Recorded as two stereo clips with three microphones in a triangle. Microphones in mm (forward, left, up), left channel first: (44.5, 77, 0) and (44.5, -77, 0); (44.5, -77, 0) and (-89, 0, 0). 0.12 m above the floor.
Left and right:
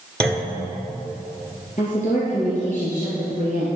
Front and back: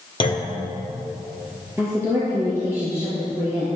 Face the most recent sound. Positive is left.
turn(degrees=80)